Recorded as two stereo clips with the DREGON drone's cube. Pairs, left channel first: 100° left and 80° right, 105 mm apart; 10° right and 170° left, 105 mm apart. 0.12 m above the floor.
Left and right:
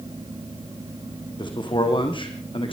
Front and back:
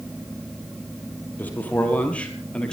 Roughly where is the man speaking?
Ahead left.